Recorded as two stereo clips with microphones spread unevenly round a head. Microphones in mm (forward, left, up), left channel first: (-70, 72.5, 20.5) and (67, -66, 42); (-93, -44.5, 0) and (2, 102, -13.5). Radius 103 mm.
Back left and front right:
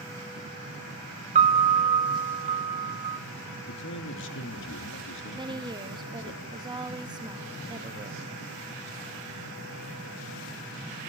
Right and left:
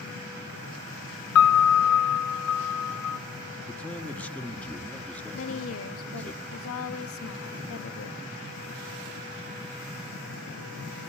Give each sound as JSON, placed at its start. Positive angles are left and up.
{"t": 1.4, "sound": "a piano", "azimuth_deg": -105, "distance_m": 0.8}
{"t": 3.7, "sound": "a man speaking", "azimuth_deg": 155, "distance_m": 1.9}
{"t": 5.3, "sound": "a woman speaking", "azimuth_deg": -115, "distance_m": 1.2}